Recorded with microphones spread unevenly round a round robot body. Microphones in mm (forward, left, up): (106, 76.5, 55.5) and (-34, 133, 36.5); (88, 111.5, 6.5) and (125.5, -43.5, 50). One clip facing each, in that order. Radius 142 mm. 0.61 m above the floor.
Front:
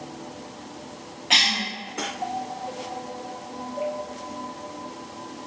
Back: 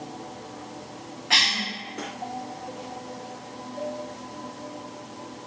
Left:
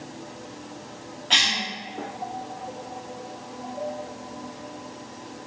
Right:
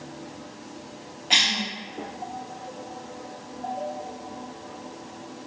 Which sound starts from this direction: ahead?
A cough, at 1.3 s.